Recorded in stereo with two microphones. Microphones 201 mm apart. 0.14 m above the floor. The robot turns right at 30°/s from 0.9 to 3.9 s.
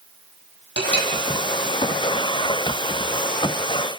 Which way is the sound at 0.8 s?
60° left (ahead or behind).